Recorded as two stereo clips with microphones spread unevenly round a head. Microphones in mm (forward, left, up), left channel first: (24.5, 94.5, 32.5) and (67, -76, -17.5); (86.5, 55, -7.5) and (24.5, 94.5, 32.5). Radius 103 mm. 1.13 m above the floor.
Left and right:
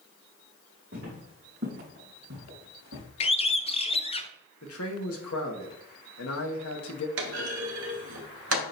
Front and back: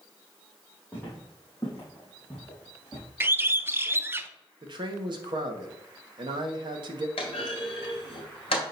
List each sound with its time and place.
0.9 s footsteps: 130° right, 3.5 m; by 3.0 s 110° right, 3.5 m
3.2 s a bird: 55° left, 0.6 m
4.6 s a man speaking: 130° left, 1.4 m
7.2 s a clunk: 85° right, 2 m